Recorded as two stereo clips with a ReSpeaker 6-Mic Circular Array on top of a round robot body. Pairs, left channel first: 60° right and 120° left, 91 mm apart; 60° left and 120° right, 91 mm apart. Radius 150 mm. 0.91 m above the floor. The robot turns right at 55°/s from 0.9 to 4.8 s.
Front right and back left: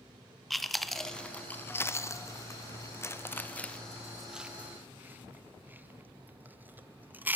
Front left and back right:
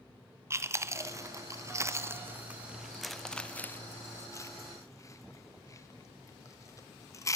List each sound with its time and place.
0.5 s chewing: 150° right, 0.6 m; by 7.4 s 65° left, 0.6 m